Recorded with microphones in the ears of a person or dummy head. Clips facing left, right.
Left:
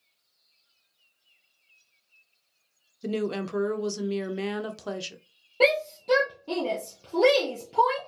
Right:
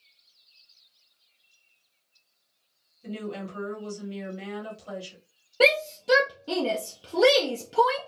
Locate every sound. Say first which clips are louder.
3.0 s a woman speaking: left 6 dB; 70° left (ahead or behind), 0.8 m
5.6 s a shout: even; 15° right (ahead or behind), 0.6 m